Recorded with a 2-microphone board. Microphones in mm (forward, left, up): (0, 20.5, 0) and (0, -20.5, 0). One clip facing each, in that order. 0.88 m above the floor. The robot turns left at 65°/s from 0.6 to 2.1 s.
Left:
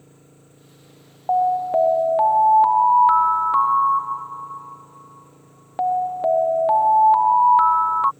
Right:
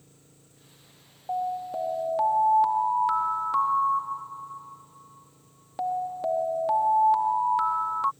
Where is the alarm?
80° left; by 8.1 s 30° left.